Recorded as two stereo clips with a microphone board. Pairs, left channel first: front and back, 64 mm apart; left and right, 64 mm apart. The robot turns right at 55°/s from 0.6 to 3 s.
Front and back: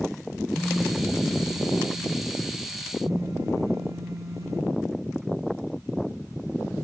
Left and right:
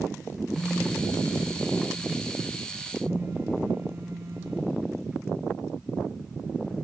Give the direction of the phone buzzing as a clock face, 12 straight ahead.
9 o'clock.